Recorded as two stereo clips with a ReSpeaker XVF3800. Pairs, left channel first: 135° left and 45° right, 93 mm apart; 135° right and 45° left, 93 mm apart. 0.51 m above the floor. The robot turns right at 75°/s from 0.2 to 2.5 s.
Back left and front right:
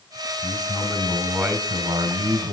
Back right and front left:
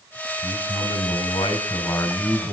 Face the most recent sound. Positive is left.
turn(degrees=-35)